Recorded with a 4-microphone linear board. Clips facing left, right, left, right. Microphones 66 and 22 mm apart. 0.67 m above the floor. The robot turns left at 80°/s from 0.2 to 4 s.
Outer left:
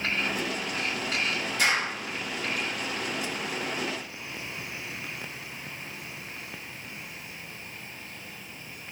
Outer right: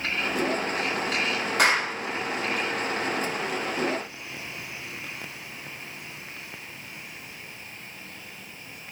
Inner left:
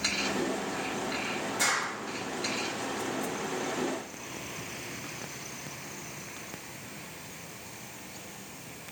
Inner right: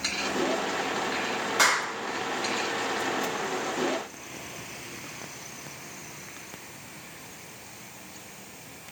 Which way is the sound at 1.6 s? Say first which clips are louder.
Outer right 4 dB, inner right 6 dB; 65° right (ahead or behind).